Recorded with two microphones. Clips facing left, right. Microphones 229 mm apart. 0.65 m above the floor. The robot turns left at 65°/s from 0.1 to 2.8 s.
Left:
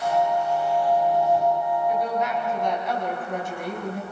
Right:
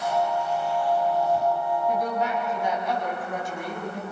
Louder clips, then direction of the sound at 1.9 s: Left 1 dB; 120° right.